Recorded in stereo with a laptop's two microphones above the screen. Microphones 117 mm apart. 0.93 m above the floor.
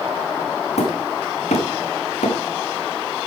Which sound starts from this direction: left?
Hammering, at 0.8 s.